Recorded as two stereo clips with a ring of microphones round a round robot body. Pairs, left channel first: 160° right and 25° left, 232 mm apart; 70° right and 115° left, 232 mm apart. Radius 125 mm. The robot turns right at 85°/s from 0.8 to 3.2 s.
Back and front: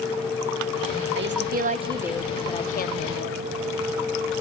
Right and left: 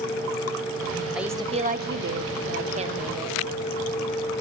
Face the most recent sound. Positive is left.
turn(degrees=-160)